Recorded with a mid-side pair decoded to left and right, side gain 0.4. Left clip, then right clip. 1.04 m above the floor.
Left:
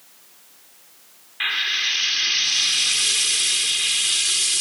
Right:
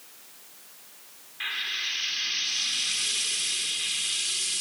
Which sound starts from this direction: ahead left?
Frying, at 1.4 s.